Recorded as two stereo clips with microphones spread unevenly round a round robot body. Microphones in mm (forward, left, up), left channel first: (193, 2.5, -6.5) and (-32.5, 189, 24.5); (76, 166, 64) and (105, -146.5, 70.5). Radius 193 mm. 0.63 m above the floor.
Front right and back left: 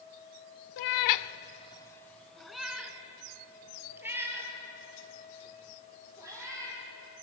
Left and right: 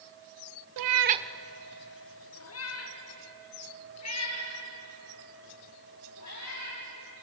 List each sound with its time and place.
0.8 s a cat meowing: 65° right, 0.7 m; by 6.8 s 60° left, 9 m